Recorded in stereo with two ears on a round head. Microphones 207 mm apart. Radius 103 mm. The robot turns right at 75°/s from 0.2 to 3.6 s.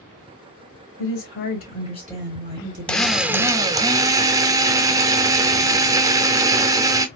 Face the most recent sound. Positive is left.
turn(degrees=-15)  # may be behind; listen again after turning